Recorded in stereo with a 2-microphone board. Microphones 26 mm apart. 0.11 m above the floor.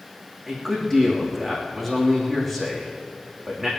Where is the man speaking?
10° left (ahead or behind), 5 m.